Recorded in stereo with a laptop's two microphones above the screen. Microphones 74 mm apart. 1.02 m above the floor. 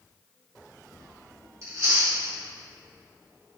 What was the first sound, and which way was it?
Chewing, 45° right (ahead or behind).